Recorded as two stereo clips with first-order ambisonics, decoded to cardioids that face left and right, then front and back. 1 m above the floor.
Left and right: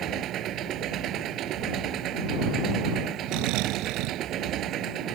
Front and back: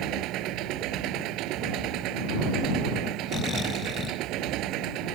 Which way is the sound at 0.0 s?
140° right.